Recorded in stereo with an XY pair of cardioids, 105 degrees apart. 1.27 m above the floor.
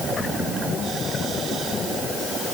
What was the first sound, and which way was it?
Only background noise.